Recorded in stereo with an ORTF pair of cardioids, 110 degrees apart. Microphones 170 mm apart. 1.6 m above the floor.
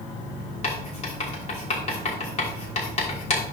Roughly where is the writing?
Ahead left.